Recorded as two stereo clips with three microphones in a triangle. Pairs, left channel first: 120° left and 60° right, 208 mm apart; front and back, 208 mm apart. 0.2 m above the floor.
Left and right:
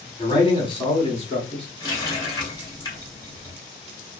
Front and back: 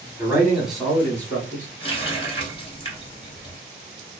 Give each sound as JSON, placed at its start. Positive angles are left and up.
{"t": 0.2, "sound": "a man speaking", "azimuth_deg": 130, "distance_m": 1.1}
{"t": 1.8, "sound": "a running tap", "azimuth_deg": 55, "distance_m": 1.3}